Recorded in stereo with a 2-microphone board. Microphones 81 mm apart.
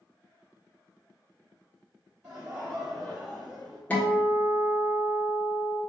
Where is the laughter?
15° right (ahead or behind), 1.9 m; by 3.8 s 5° left (ahead or behind), 2 m.